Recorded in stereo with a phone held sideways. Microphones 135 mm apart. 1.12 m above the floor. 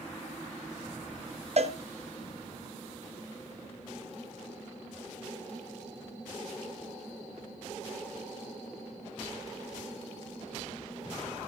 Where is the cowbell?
50° right (ahead or behind), 0.9 m.